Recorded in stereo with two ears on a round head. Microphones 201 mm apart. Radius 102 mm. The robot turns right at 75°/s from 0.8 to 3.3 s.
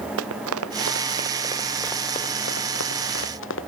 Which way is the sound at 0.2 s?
70° right (ahead or behind).